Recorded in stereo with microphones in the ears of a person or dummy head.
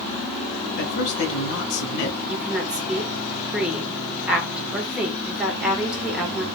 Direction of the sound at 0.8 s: 65° left (ahead or behind).